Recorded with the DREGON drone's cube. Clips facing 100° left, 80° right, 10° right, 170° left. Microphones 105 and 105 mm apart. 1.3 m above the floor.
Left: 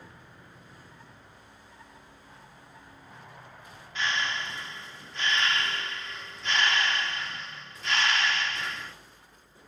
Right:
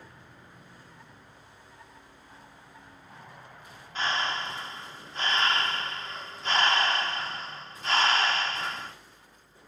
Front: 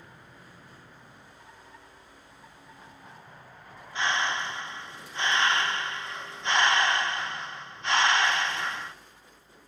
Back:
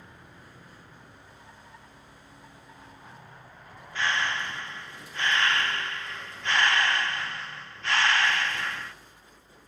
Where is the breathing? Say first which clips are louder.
Right 1 dB, front 1 dB; 65° right, 0.8 m.